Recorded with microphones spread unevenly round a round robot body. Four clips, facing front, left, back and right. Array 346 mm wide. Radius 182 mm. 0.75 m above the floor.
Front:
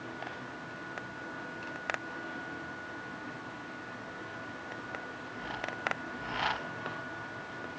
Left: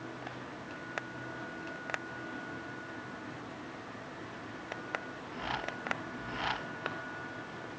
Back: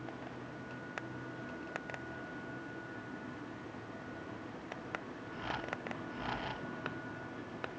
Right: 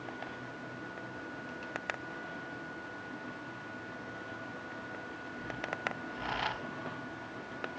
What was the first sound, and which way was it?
Only background noise.